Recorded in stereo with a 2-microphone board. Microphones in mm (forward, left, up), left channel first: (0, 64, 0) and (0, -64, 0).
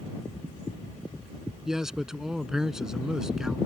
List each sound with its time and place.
1.6 s a man speaking: 5° right (ahead or behind)